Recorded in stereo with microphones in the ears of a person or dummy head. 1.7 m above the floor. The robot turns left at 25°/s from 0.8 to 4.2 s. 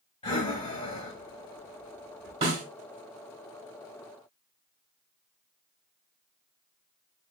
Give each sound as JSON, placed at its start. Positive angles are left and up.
{"t": 0.2, "sound": "breathing", "side_deg": 30, "distance_m": 1.5}
{"t": 2.4, "sound": "a snare drum", "side_deg": -35, "distance_m": 1.6}